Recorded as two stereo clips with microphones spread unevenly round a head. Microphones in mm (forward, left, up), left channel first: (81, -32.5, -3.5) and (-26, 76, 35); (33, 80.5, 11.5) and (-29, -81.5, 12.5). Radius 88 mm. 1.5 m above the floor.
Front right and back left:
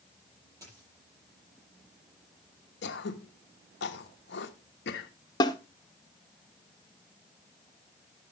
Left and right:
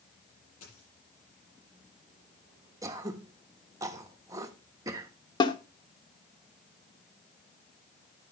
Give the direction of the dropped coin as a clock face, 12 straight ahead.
10 o'clock.